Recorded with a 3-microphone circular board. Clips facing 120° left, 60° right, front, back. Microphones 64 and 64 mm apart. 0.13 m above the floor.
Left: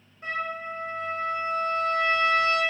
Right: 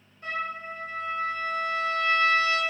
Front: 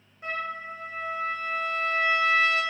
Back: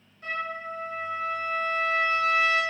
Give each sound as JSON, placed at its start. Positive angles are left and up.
{"t": 0.2, "sound": "a trumpet", "azimuth_deg": 65, "distance_m": 1.3}